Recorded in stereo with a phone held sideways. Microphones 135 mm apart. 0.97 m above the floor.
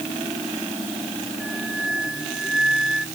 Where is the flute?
5° right (ahead or behind).